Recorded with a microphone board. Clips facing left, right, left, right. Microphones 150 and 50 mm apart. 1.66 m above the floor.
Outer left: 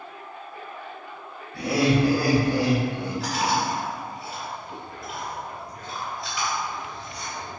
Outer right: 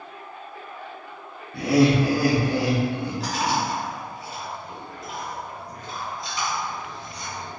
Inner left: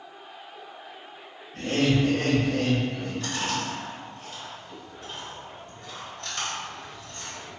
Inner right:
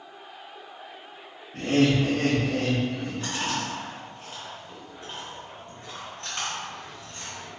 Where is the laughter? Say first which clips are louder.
Outer right 3 dB, inner right 2 dB; 75° right (ahead or behind), 0.7 m; by 3.6 s 50° right (ahead or behind), 1.3 m.